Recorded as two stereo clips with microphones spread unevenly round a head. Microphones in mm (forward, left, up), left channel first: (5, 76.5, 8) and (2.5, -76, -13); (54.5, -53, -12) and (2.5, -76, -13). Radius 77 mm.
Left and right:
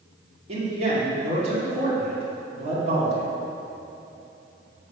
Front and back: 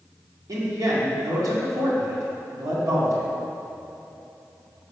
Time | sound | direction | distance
0.5 | a man speaking | 140° right | 1.9 m